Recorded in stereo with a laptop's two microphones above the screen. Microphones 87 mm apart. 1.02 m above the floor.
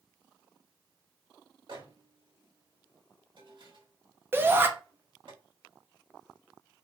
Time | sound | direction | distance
1.7 | a microwave | 65° right (ahead or behind) | 1.7 m
4.3 | a shout | 25° right (ahead or behind) | 0.5 m